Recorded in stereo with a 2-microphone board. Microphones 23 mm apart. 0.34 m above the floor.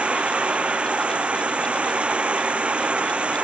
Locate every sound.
0.0 s running water: 65° right (ahead or behind)